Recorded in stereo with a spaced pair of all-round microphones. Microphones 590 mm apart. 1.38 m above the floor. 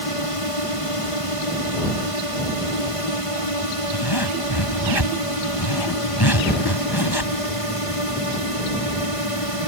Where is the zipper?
40° left (ahead or behind).